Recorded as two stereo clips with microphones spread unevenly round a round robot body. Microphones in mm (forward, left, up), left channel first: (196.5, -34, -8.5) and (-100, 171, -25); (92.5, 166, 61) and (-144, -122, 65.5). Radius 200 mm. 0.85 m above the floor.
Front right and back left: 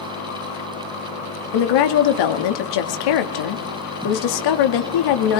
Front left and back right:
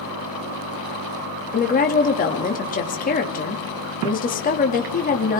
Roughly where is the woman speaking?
Ahead.